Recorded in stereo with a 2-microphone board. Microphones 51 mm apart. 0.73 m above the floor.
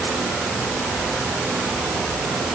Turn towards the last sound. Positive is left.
No sound to turn to.